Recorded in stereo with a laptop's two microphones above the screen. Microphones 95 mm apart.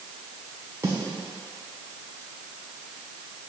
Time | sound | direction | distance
0.8 | a snare drum | 30° right (ahead or behind) | 1.1 m